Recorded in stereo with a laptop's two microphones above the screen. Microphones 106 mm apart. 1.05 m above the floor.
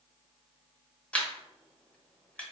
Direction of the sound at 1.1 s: 10° left (ahead or behind).